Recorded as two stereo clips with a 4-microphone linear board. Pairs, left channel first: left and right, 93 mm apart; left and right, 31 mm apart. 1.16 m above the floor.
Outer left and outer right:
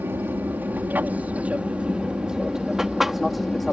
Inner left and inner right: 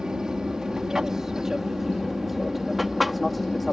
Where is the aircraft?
25° right (ahead or behind); by 3.7 s centre (ahead or behind).